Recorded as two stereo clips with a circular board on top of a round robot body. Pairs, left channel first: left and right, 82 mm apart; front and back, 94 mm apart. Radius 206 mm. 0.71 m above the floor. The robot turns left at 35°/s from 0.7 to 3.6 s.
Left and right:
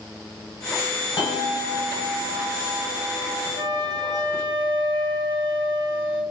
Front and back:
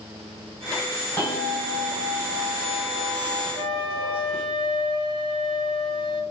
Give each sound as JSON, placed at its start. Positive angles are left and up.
{"t": 1.2, "sound": "a bell", "azimuth_deg": 55, "distance_m": 1.6}
{"t": 3.5, "sound": "a flute", "azimuth_deg": -90, "distance_m": 1.9}